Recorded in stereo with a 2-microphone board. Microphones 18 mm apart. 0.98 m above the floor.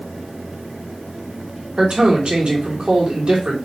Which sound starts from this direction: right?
A man speaking, at 1.8 s.